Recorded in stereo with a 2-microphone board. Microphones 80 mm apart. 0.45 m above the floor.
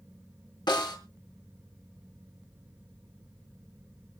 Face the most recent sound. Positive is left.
turn(degrees=70)  # may be behind; listen again after turning